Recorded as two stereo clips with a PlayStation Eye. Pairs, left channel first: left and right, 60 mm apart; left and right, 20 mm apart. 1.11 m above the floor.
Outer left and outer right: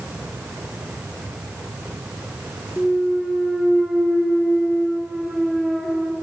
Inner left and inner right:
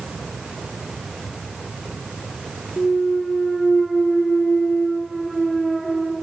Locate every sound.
2.8 s a clunk: 5° right (ahead or behind), 3.5 m